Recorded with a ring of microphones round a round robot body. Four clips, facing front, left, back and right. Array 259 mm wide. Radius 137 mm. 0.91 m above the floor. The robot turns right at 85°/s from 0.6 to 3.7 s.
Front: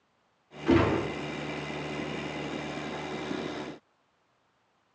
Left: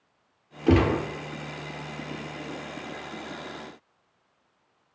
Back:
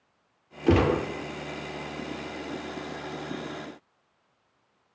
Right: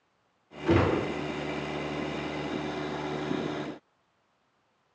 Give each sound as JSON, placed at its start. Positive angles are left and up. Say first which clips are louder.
{"t": 0.7, "sound": "a gunshot", "louder": "left 3 dB, back 1 dB", "azimuth_deg": 135, "distance_m": 1.9}